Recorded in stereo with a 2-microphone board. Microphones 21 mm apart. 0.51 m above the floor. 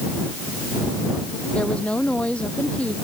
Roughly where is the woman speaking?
Left.